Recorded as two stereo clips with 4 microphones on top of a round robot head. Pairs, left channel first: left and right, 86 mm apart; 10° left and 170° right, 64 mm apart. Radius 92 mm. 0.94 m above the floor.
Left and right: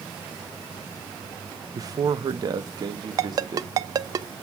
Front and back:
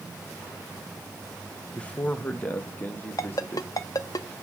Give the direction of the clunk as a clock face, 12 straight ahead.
No clunk in this recording.